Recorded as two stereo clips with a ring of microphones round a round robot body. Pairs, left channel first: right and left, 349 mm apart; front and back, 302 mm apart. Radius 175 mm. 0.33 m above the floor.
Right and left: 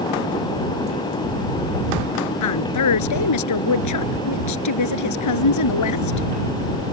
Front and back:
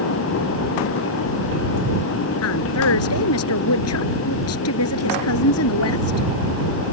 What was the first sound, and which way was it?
A woman speaking, 50° right.